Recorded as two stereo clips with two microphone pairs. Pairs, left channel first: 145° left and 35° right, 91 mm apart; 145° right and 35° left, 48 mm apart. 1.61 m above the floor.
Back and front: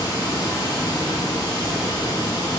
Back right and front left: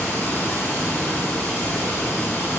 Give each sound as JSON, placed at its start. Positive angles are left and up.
{"t": 0.0, "sound": "running water", "azimuth_deg": -175, "distance_m": 4.5}